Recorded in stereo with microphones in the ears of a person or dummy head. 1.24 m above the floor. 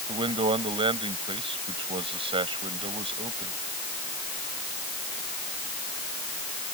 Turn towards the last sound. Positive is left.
turn(degrees=-25)  # may be behind; listen again after turning